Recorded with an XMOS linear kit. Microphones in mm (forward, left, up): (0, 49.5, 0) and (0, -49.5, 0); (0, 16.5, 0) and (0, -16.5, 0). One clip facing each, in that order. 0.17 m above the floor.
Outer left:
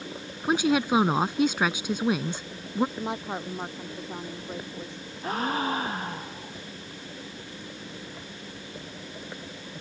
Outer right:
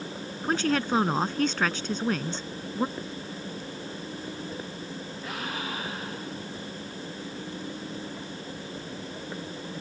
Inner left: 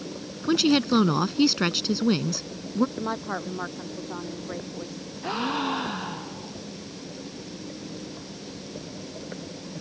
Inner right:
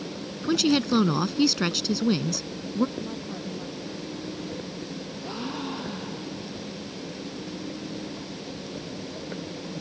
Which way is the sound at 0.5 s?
10° left (ahead or behind).